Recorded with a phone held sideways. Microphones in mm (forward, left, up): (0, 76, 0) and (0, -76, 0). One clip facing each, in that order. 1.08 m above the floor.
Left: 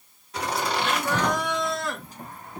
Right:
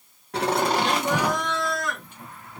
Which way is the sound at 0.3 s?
65° right (ahead or behind).